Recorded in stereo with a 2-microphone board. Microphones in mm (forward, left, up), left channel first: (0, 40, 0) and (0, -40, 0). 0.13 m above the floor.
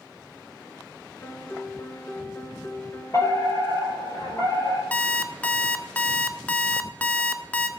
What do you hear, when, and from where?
1.2 s a piano: 25° left (ahead or behind), 1.1 m
3.1 s a fire alarm: 45° left (ahead or behind), 5 m
4.9 s an alarm clock: 20° left (ahead or behind), 0.8 m